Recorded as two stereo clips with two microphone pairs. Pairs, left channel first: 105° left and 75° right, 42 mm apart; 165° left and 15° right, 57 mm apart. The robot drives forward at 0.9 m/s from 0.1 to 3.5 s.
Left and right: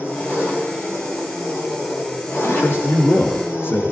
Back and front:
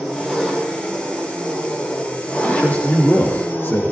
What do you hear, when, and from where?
0.0 s an engine running: 70° left, 5 m; by 3.9 s 110° left, 5 m
2.4 s a man speaking: 100° left, 4 m; by 3.9 s 115° left, 4 m